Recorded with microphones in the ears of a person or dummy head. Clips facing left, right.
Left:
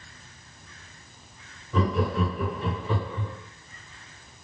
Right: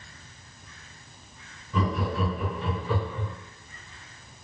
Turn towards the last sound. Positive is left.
turn(degrees=15)  # may be behind; listen again after turning